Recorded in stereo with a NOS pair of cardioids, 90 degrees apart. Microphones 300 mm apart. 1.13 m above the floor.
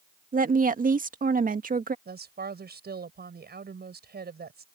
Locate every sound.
0.3 s a woman speaking: 30° right
2.0 s a woman speaking: 35° right